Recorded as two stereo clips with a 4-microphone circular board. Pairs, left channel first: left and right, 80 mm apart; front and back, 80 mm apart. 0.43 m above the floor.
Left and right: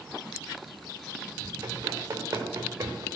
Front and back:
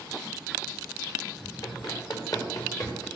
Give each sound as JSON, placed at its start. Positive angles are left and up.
{"t": 1.6, "sound": "running footsteps", "azimuth_deg": -30, "distance_m": 4.5}